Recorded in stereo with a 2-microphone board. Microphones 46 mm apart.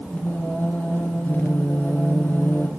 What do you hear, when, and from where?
0.1 s singing: 35° left (ahead or behind), 3.5 m